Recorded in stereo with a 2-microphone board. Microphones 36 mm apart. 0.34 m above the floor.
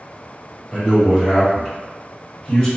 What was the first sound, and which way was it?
A man speaking, 30° right (ahead or behind).